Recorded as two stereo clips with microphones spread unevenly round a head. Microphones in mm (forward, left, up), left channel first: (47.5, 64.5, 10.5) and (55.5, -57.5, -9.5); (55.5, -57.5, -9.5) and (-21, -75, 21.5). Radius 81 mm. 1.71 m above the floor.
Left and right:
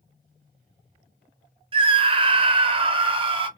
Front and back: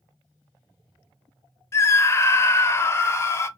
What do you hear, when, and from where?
1.7 s a scream: 55° right, 0.6 m